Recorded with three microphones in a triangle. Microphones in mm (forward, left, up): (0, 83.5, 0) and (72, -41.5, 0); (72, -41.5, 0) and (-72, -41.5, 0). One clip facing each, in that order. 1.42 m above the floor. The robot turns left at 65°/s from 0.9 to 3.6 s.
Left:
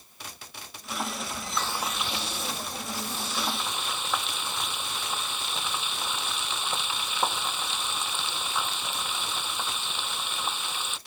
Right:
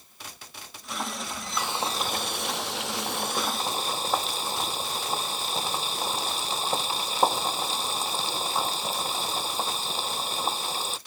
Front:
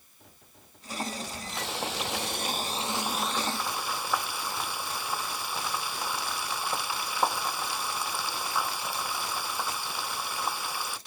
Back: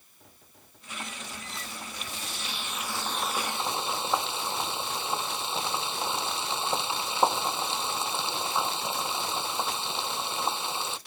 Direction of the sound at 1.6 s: 20° left.